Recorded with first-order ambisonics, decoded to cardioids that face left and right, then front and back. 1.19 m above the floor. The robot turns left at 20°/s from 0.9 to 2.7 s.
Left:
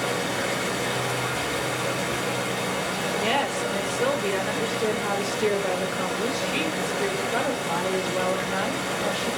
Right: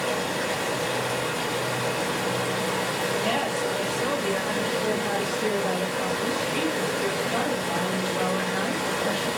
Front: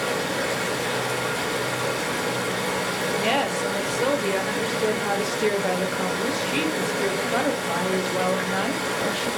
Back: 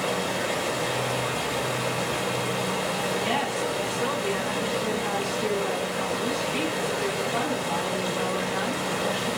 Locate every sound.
0.0 s running water: 25° left, 2 m; by 9.4 s 15° right, 2 m
3.2 s a woman speaking: 30° left, 0.9 m